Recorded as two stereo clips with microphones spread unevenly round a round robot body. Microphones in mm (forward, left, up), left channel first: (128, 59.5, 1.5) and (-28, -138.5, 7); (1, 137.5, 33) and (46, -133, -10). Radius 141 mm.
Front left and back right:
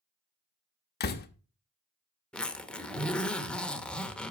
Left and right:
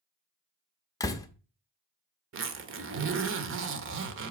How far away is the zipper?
About 1.1 m.